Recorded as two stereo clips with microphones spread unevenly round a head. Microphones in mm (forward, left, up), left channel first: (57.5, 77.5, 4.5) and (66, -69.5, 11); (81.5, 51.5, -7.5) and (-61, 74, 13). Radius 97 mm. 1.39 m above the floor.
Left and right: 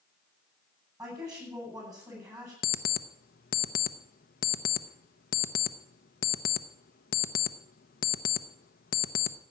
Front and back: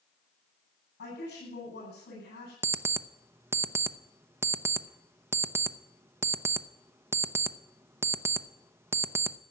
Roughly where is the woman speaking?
Ahead.